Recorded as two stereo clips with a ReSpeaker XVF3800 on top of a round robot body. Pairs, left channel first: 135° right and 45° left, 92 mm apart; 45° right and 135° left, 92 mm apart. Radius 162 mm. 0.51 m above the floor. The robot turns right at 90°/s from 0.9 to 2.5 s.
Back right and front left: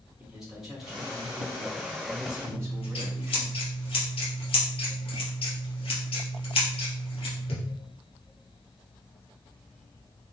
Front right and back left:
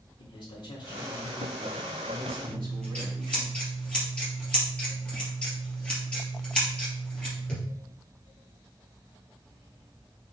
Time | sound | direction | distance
0.2 | a man speaking | 35° right | 3 m
2.5 | scissors | 125° right | 3 m